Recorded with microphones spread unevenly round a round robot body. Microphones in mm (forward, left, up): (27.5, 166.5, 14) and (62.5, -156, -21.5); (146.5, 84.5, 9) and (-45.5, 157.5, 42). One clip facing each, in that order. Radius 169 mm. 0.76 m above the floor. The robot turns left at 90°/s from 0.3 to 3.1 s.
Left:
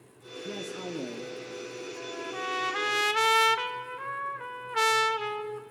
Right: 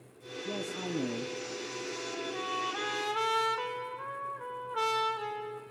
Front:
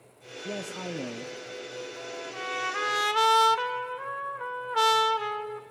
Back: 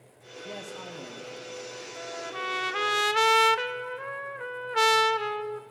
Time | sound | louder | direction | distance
0.5 | a man speaking | even, front 5 dB | 20° left | 0.7 m
2.0 | a trumpet | even, even | 170° right | 0.7 m